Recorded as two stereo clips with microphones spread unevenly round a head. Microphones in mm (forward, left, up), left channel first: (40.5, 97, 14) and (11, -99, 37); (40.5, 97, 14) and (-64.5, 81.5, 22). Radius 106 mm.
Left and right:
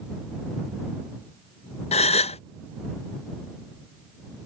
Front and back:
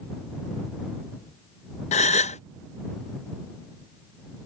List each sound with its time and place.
1.9 s a gasp: 20° left